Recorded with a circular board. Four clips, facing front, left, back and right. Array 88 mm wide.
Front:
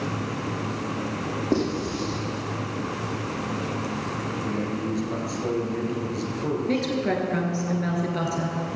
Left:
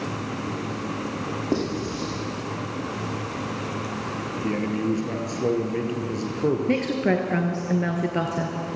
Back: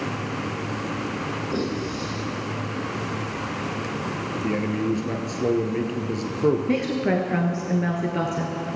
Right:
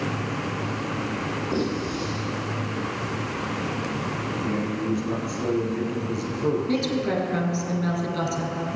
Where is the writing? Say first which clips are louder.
Left 1 dB, front 4 dB; 45° left, 4.5 m.